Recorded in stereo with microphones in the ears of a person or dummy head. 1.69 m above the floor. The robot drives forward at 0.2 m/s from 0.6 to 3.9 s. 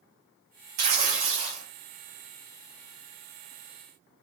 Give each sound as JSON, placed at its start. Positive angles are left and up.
{"t": 0.8, "sound": "tearing paper", "side_deg": -40, "distance_m": 0.9}